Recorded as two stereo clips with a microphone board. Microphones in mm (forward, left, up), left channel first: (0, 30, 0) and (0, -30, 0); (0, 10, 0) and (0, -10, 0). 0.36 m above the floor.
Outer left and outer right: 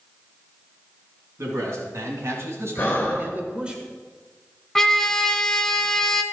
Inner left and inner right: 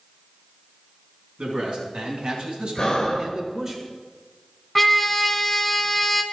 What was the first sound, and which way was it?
A man speaking, 55° right (ahead or behind).